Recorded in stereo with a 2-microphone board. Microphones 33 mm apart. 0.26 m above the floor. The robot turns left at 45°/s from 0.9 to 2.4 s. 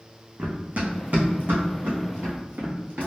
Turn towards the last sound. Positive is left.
turn(degrees=-75)  # may be behind; listen again after turning